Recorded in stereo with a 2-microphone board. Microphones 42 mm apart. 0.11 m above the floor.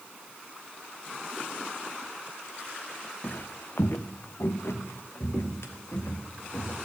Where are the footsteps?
45° left (ahead or behind), 0.7 m; by 6.8 s 90° left, 3 m.